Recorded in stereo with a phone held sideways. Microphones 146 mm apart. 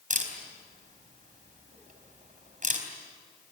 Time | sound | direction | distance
0.1 | a camera shutter | 60° right (ahead or behind) | 4 m